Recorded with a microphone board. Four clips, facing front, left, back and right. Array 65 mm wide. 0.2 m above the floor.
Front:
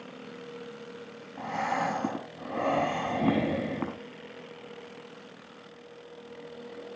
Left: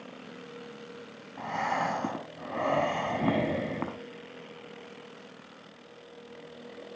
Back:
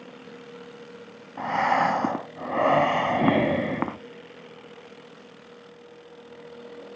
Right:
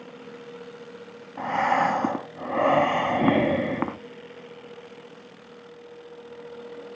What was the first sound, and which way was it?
Breathing, 140° right.